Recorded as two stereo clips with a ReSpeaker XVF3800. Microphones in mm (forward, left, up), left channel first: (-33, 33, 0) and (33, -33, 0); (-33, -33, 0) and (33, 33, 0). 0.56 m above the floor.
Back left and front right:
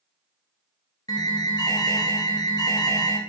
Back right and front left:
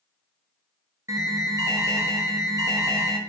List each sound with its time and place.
1.1 s an alarm: 95° left, 0.6 m